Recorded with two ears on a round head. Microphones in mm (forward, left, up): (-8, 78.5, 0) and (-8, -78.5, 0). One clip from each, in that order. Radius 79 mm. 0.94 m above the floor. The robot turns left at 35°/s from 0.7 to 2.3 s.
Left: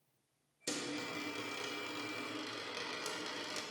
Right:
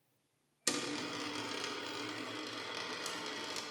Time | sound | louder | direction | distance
0.7 | a dropped coin | right 3 dB | 50° right (ahead or behind) | 0.6 m